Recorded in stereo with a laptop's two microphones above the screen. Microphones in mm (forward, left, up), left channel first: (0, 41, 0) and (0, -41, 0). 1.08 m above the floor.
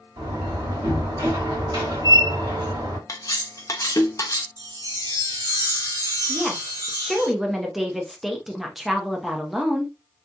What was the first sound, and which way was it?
A door slam, 55° right (ahead or behind).